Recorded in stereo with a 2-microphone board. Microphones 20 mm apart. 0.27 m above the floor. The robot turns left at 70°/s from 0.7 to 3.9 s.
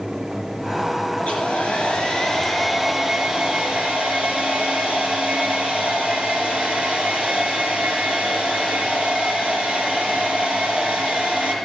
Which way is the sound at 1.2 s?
110° left.